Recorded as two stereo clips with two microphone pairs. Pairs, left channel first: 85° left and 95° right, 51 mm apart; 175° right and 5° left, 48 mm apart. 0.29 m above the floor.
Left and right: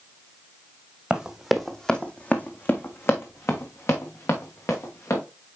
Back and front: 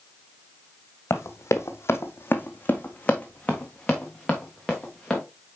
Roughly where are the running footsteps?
Behind.